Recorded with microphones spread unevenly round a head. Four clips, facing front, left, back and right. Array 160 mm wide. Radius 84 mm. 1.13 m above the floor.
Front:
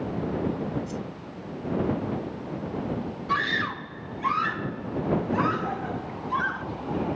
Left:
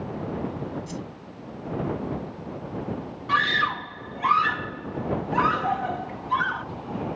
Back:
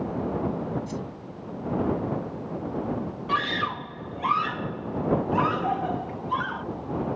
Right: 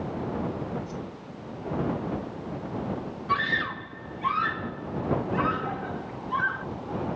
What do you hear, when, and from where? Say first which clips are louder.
0.9 s a whoosh: left 1 dB, back 1 dB; 110° left
3.3 s a scream: left 4 dB, back 1 dB; 135° left